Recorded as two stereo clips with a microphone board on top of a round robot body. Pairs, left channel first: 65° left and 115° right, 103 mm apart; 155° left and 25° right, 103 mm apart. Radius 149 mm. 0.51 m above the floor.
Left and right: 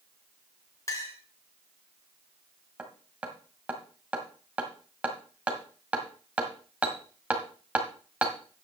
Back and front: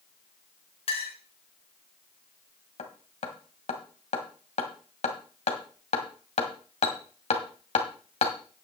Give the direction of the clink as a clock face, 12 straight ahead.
8 o'clock.